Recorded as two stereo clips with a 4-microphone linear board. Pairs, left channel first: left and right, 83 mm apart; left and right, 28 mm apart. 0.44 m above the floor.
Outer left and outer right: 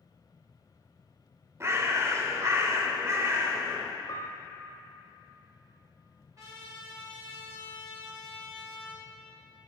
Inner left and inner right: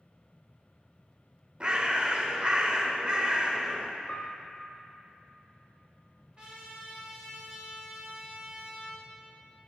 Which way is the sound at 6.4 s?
40° right (ahead or behind).